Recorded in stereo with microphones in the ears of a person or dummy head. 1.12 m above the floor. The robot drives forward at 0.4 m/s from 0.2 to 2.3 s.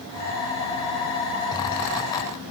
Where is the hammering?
I don't hear hammering.